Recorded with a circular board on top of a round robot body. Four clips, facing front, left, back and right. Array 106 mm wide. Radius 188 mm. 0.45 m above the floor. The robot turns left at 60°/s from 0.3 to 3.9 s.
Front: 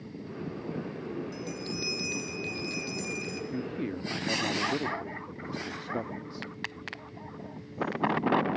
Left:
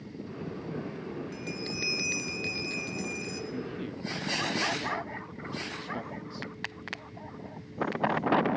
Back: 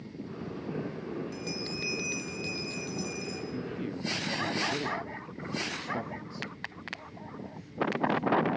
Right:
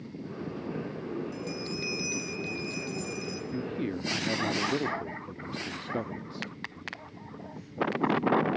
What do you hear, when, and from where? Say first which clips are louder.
1.3 s a bell: right 1 dB, front 1 dB; 145° left, 1.6 m; by 3.4 s 20° left, 1.6 m
3.5 s a man speaking: right 4 dB, front 4 dB; 35° right, 1.4 m; by 6.5 s 55° right, 1.4 m